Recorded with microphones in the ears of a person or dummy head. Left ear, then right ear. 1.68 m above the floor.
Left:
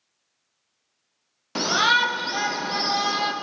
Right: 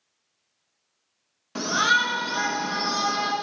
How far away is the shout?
About 0.7 m.